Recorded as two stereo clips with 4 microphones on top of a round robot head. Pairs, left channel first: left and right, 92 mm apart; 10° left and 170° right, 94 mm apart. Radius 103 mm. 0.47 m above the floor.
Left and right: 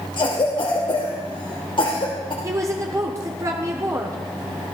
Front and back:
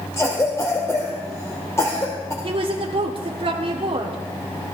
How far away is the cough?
About 2 m.